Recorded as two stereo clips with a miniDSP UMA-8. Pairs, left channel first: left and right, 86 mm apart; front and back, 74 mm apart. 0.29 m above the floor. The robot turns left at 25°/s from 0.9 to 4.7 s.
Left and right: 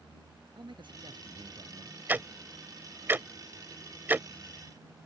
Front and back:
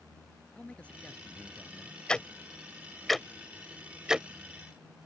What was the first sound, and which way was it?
A man speaking, 70° right.